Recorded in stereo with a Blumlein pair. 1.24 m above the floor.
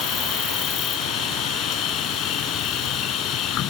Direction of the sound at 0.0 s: 35° left.